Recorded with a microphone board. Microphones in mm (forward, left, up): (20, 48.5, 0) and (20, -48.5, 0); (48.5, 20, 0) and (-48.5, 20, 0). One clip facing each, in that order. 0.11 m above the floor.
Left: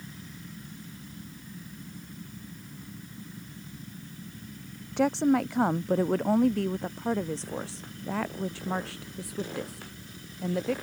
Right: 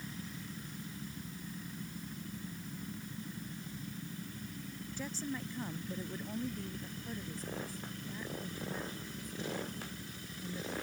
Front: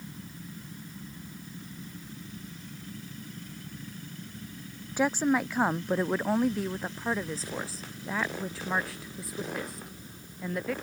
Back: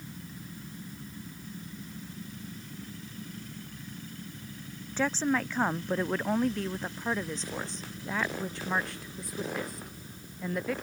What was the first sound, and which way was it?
A woman speaking, 75° left.